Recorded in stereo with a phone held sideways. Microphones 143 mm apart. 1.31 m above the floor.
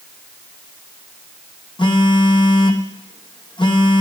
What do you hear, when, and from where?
1.8 s a phone buzzing: 35° left (ahead or behind), 0.8 m